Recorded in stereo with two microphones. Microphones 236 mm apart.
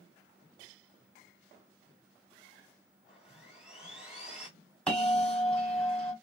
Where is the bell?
5° left (ahead or behind), 1.6 m.